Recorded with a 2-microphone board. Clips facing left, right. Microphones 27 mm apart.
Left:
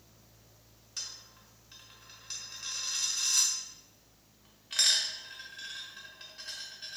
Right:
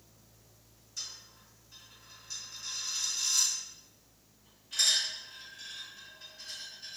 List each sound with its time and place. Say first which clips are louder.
1.0 s a dropped coin: left 1 dB; 70° left (ahead or behind), 0.7 m